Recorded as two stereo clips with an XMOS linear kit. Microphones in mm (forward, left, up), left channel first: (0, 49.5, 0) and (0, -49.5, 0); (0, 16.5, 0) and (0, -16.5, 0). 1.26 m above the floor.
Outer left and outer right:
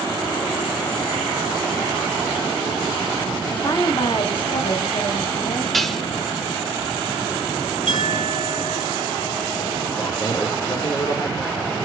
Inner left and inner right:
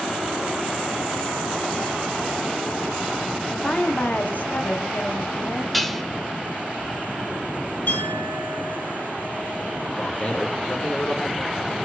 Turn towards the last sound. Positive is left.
turn(degrees=45)  # may be behind; listen again after turning